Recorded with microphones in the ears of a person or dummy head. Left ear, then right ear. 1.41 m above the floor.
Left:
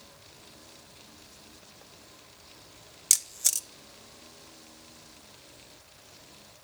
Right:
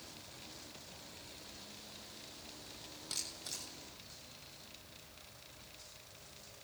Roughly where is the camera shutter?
Left.